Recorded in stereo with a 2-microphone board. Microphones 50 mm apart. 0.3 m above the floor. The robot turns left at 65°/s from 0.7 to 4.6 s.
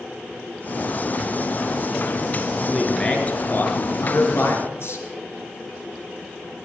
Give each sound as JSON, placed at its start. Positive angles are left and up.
{"t": 2.7, "sound": "a man speaking", "azimuth_deg": -170, "distance_m": 4.5}